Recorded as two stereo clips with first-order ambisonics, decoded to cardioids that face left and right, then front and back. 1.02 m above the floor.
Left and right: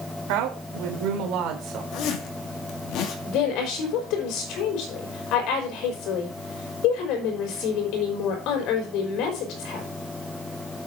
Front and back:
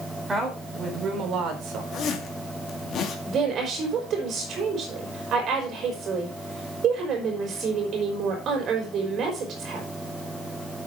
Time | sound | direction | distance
0.3 | a woman speaking | 105° right | 3.5 m
1.9 | a zipper | 55° left | 2.5 m
3.2 | a woman speaking | 125° left | 5 m